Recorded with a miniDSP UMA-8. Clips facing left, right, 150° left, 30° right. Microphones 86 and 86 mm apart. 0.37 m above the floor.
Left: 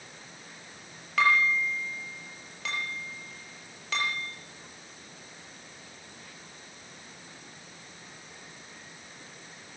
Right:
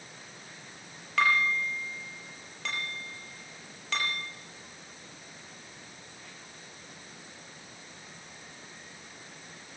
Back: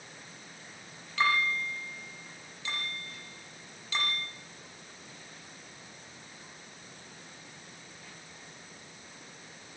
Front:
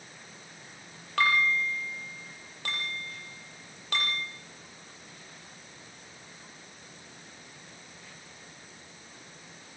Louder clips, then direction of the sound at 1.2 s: Left 2 dB, front 3 dB; straight ahead.